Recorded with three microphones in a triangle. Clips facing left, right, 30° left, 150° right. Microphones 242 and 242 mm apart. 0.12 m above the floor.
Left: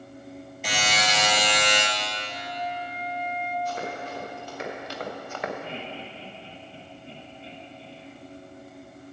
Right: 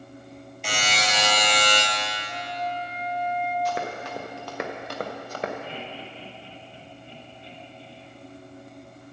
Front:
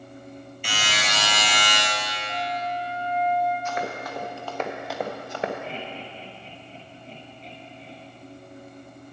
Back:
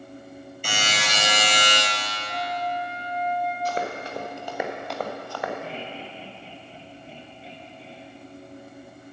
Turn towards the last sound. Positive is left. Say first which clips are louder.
# left 1 dB, even
turn(degrees=130)